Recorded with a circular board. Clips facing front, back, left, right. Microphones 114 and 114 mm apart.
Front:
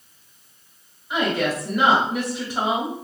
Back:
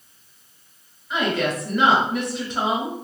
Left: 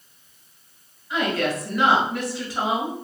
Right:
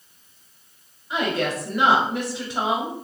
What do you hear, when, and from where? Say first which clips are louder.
1.1 s a woman speaking: even, even; 70° right, 1.2 m